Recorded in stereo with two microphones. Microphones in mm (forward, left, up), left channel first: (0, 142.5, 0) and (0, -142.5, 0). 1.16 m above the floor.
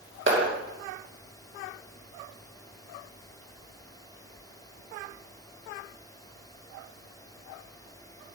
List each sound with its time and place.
0.3 s a clap: 40° right (ahead or behind), 2.5 m